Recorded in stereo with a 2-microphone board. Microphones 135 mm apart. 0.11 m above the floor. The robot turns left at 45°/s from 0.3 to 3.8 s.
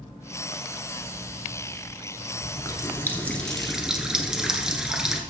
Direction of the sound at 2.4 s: 55° left.